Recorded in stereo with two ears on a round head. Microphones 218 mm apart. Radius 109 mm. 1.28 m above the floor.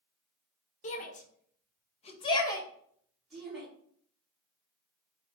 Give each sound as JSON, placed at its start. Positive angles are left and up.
{"t": 0.8, "sound": "a shout", "side_deg": 30, "distance_m": 0.8}